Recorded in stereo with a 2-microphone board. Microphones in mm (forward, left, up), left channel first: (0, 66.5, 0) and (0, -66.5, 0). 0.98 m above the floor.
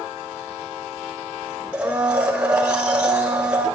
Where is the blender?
10° right (ahead or behind), 1.3 m.